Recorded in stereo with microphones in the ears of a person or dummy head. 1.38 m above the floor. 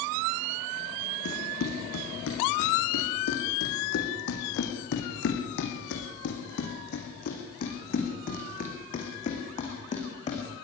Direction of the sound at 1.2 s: 75° left (ahead or behind).